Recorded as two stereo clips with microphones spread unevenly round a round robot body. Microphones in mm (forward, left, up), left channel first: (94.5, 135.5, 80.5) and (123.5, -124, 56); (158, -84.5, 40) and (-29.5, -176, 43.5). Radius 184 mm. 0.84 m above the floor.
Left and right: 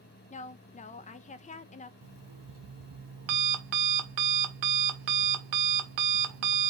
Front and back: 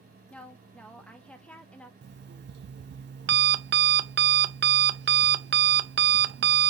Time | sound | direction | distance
0.3 | a woman speaking | 95° left | 0.5 m
2.0 | an alarm clock | 110° right | 0.5 m